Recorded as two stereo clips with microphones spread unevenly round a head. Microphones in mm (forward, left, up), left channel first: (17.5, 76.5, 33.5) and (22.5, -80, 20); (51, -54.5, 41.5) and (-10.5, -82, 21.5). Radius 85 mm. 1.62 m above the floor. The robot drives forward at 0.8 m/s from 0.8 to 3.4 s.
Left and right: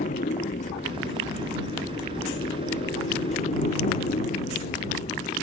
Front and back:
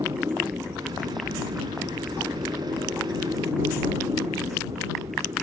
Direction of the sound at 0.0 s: 140° left.